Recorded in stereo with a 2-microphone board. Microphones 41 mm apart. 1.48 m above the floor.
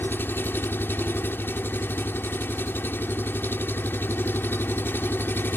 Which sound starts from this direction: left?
An engine running, at 0.0 s.